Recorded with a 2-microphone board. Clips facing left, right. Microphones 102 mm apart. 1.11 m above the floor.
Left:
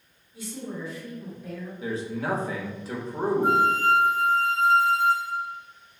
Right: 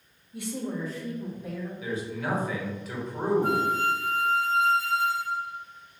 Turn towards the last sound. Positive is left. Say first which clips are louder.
# left 4 dB
turn(degrees=20)  # may be behind; listen again after turning